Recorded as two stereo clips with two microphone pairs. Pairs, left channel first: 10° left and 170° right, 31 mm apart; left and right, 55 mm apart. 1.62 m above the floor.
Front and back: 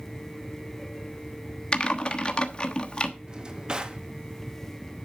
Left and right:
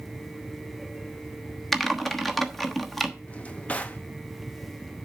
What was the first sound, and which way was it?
Typing on a keyboard, 10° left.